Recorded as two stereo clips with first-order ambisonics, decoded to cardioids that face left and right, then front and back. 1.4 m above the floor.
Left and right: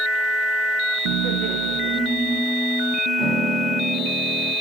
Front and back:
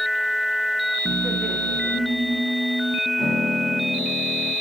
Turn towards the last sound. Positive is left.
turn(degrees=-80)